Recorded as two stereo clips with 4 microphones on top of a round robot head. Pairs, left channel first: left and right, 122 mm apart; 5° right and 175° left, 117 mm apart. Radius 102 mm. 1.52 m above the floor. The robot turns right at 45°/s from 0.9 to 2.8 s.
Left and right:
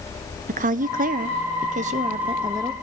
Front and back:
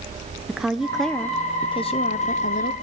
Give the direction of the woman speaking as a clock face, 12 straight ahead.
3 o'clock.